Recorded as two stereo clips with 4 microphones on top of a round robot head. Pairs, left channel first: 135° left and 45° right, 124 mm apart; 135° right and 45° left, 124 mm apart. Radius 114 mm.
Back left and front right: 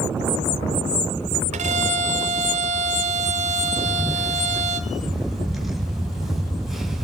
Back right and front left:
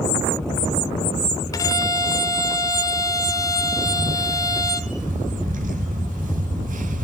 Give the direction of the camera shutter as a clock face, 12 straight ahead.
11 o'clock.